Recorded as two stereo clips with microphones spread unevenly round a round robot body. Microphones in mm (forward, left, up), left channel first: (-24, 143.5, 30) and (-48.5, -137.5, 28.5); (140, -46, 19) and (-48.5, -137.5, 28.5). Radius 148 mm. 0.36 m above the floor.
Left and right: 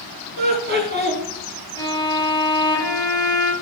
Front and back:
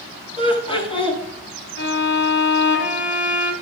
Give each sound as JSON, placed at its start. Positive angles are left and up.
{"t": 0.4, "sound": "laughter", "azimuth_deg": -40, "distance_m": 5.0}
{"t": 1.8, "sound": "a violin", "azimuth_deg": 10, "distance_m": 2.0}